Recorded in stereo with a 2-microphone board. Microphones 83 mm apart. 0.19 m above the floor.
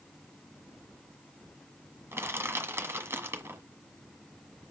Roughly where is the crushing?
Right.